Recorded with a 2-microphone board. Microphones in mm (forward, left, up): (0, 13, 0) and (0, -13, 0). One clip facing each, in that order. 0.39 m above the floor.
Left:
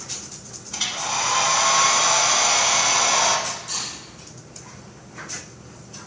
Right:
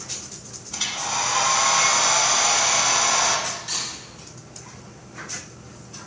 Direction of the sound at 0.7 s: 5° left (ahead or behind).